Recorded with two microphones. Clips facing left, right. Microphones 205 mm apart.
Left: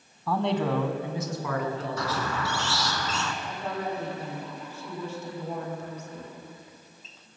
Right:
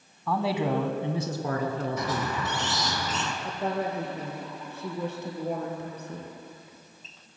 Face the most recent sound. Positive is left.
turn(degrees=-65)  # may be behind; listen again after turning